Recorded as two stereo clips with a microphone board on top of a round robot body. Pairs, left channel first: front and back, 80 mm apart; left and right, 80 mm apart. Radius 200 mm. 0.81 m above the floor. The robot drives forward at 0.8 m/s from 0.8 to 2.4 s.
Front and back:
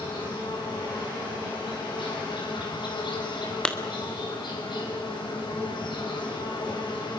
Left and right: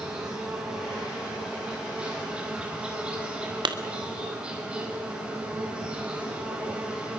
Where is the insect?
10° right, 6 m; by 7.2 s 15° right, 4.5 m.